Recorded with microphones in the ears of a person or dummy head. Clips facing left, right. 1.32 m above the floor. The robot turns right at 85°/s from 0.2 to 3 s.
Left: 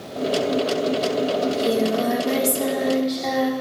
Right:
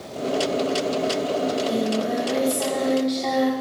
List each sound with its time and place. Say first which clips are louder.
1.4 s singing: left 2 dB; 45° left, 4.5 m; by 3.5 s straight behind, 4.5 m